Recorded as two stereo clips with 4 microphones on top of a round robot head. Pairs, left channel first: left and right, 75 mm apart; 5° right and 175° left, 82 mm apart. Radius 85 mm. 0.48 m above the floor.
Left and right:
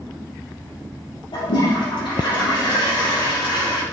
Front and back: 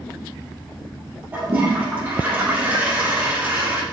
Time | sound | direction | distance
1.3 | a toilet flushing | 105° left | 3 m